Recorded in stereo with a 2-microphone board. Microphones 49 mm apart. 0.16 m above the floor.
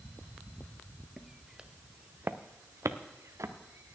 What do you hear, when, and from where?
1.2 s footsteps: centre (ahead or behind), 1.2 m; by 4.0 s 70° right (ahead or behind), 1.6 m